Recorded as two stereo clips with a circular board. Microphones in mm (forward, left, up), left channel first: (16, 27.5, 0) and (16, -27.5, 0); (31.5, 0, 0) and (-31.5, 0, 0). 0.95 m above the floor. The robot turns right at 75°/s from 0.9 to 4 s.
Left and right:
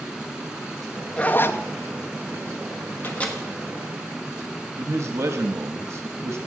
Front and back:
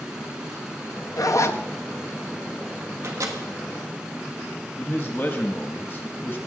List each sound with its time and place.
1.2 s a zipper: 20° left, 0.6 m; by 1.6 s 55° left, 0.6 m
3.0 s a microwave: 145° left, 1.4 m; by 3.4 s 170° left, 1.4 m
4.8 s a man speaking: 65° right, 0.8 m